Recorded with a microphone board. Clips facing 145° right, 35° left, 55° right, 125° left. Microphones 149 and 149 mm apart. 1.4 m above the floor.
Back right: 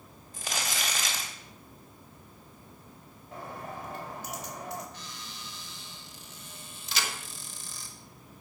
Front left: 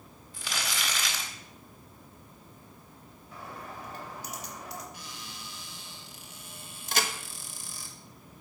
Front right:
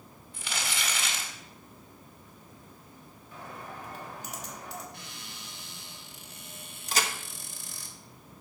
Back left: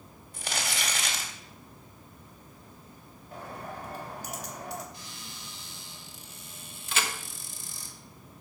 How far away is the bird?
About 3 m.